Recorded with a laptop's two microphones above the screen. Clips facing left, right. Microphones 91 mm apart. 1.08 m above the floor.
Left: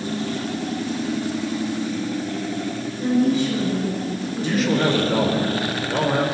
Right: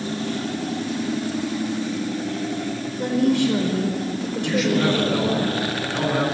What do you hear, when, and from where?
3.0 s a woman speaking: 80° right, 5 m
4.4 s a man speaking: 45° left (ahead or behind), 4.5 m